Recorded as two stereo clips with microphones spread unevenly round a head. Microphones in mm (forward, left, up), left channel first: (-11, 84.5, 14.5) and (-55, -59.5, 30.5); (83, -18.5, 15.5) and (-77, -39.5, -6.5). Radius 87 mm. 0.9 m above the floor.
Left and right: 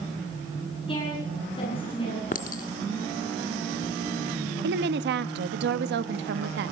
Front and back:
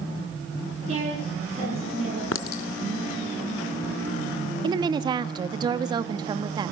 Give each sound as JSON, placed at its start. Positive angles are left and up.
{"t": 0.9, "sound": "a woman speaking", "azimuth_deg": 130, "distance_m": 9.5}
{"t": 2.3, "sound": "a clink", "azimuth_deg": 25, "distance_m": 1.0}
{"t": 4.6, "sound": "a woman speaking", "azimuth_deg": -110, "distance_m": 1.3}